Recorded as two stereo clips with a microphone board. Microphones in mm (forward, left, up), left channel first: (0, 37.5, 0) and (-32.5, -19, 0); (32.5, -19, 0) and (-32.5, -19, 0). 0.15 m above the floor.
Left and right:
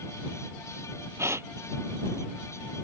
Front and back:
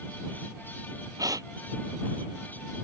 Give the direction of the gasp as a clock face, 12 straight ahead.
6 o'clock.